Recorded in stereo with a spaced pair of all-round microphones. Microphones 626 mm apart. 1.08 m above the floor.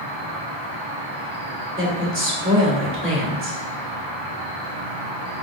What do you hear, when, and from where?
0.0 s an insect: 45° right (ahead or behind), 1.4 m
1.8 s a woman speaking: 20° right (ahead or behind), 3 m